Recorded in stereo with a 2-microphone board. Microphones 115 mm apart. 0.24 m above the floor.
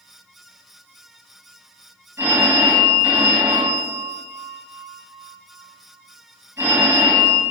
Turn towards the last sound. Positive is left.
turn(degrees=-20)  # may be behind; listen again after turning